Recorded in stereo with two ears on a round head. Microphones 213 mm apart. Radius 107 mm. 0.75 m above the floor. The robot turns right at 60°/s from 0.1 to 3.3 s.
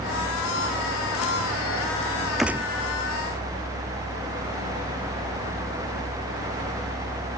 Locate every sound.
2.4 s a gunshot: centre (ahead or behind); by 2.7 s 20° right (ahead or behind)